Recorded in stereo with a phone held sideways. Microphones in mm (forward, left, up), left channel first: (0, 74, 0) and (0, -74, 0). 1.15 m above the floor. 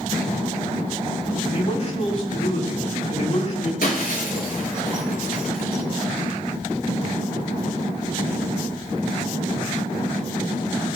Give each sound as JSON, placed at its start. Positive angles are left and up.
{"t": 1.5, "sound": "a man speaking", "side_deg": 50, "distance_m": 7.5}
{"t": 3.8, "sound": "breaking glass", "side_deg": 80, "distance_m": 6.0}